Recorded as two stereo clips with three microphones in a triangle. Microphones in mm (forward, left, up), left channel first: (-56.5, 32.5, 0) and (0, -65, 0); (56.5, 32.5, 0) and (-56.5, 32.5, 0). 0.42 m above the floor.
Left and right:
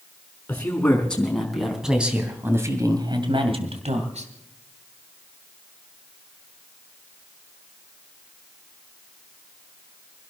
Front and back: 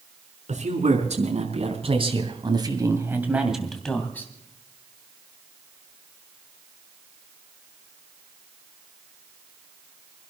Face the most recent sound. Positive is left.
turn(degrees=-70)